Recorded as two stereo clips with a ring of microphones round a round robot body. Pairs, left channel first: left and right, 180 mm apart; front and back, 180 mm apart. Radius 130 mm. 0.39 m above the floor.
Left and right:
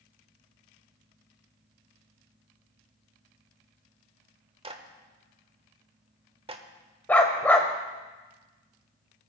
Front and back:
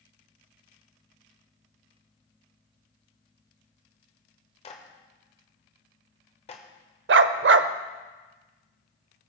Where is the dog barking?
170° left, 0.6 m.